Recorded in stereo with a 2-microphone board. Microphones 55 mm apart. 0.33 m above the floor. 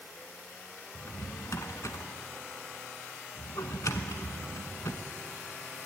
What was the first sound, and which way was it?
A drawer, 80° left.